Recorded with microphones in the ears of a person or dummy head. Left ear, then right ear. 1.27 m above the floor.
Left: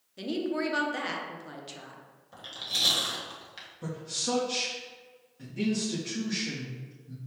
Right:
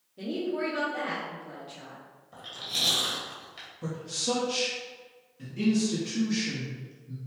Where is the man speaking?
15° left (ahead or behind), 0.9 m.